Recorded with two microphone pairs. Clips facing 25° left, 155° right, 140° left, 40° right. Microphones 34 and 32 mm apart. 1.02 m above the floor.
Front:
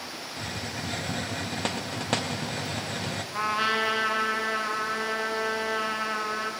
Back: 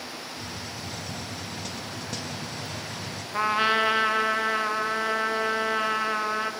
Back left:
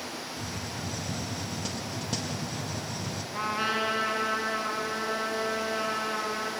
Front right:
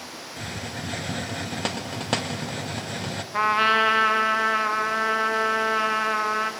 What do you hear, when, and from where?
0.4 s a hiss: 10° right, 0.8 m
3.3 s a trumpet: 85° right, 1.2 m